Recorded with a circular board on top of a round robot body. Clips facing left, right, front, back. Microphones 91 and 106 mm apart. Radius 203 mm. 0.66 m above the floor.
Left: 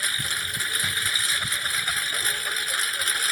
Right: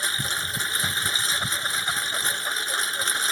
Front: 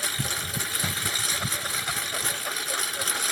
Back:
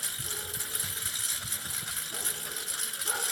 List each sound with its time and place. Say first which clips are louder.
0.0 s a lawn mower: right 1 dB, front 10 dB; 25° right